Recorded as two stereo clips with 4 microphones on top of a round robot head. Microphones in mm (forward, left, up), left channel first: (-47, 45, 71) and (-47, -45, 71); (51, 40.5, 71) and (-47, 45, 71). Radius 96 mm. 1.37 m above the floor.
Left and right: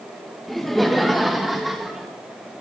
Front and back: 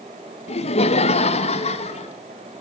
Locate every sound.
0.5 s laughter: 5° left, 1.8 m; by 2.1 s straight ahead, 2.5 m